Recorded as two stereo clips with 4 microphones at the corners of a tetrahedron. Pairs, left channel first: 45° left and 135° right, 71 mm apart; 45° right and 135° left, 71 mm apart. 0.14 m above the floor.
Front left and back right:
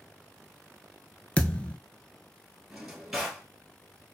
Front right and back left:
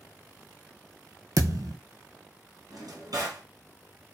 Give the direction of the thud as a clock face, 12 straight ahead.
8 o'clock.